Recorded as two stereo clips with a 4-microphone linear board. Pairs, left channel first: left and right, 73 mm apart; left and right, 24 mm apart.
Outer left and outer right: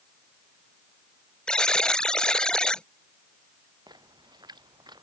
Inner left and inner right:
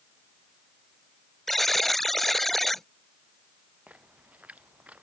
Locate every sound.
1.5 s a buzzer: 10° left (ahead or behind)
3.9 s a splash: 70° right (ahead or behind)